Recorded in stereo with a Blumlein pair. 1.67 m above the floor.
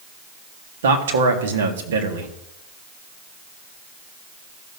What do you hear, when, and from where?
0.8 s a man speaking: 60° right, 1.7 m